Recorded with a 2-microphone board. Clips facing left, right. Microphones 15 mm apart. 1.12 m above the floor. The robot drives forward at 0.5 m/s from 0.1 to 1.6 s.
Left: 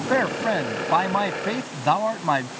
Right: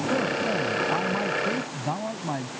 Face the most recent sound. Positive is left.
turn(degrees=70)  # may be behind; listen again after turning